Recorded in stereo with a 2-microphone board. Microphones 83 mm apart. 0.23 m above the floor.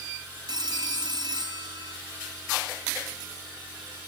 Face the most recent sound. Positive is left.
turn(degrees=-60)  # may be behind; listen again after turning